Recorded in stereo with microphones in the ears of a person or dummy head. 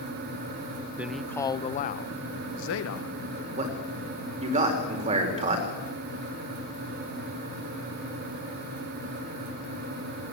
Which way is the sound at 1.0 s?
15° right (ahead or behind).